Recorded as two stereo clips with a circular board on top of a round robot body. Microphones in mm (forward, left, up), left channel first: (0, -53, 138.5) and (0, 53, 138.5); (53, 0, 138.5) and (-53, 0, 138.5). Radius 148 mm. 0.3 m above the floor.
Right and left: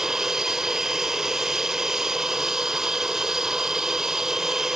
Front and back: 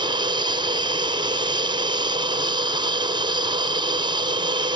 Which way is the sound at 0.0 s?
175° left.